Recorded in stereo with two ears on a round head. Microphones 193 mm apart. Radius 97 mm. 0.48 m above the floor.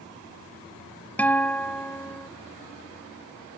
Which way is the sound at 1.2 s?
5° left (ahead or behind).